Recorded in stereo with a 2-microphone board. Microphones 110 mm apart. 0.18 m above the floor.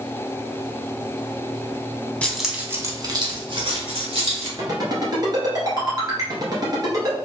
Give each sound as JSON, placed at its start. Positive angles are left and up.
{"t": 2.2, "sound": "keys jangling", "side_deg": 10, "distance_m": 0.8}
{"t": 4.6, "sound": "a ringtone", "side_deg": -40, "distance_m": 1.5}